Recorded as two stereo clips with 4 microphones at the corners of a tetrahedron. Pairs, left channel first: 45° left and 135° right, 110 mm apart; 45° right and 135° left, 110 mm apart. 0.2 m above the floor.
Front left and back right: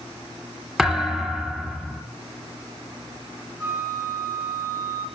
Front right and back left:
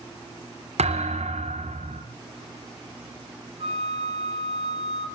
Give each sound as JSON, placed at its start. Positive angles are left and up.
{"t": 0.8, "sound": "a thud", "azimuth_deg": 135, "distance_m": 4.5}
{"t": 3.6, "sound": "a flute", "azimuth_deg": 155, "distance_m": 3.5}